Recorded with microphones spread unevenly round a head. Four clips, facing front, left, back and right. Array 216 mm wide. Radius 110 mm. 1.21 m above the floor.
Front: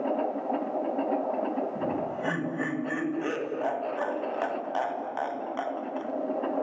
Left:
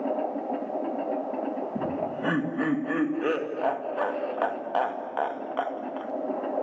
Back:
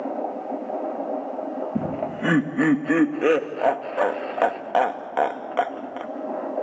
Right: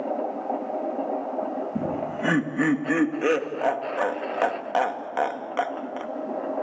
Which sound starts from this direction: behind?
Laughter, at 1.8 s.